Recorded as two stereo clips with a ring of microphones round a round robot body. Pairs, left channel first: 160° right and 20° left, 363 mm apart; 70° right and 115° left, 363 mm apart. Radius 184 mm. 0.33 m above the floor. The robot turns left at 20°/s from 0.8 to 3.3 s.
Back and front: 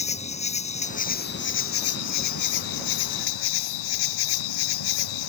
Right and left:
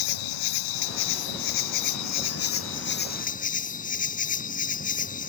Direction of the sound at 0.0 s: 85° right.